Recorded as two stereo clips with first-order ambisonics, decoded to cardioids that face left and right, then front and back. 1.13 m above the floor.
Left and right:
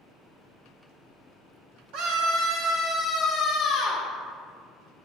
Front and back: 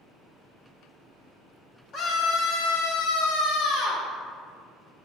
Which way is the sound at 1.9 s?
60° right.